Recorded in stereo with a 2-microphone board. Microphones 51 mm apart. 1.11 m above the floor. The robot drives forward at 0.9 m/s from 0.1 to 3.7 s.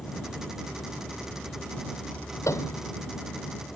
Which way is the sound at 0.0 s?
25° left (ahead or behind).